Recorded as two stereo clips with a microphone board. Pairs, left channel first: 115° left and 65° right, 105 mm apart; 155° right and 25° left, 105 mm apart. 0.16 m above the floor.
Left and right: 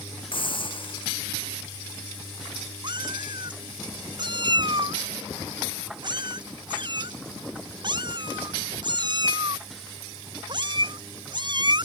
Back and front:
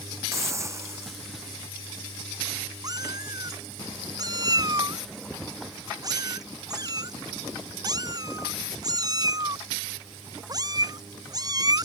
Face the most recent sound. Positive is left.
turn(degrees=-30)